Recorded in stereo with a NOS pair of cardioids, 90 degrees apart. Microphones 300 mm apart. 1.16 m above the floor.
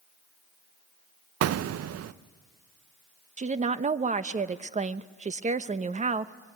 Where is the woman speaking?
25° right, 1.0 m.